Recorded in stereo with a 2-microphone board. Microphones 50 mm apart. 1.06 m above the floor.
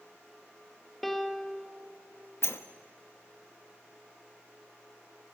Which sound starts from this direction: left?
A sliding door, at 2.4 s.